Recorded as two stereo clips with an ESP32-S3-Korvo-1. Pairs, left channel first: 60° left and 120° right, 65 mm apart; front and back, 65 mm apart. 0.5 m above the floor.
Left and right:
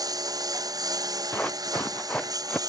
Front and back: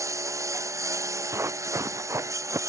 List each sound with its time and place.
0.0 s a lawn mower: 140° right
1.3 s running footsteps: 130° left; by 2.6 s 135° left